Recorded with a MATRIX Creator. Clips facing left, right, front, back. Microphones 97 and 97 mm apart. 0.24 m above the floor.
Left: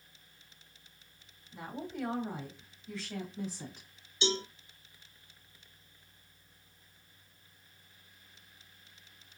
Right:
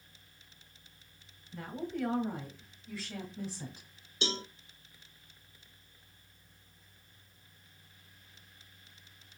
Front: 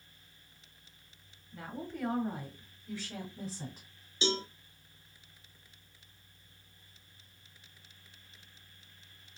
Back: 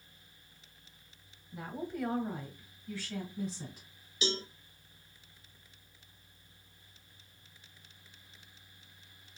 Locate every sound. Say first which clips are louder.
1.5 s a woman speaking: right 2 dB, back 3 dB; 145° left, 1.3 m; by 3.9 s 10° right, 1.6 m
4.2 s a cowbell: left 4 dB, front 3 dB; 55° right, 1.0 m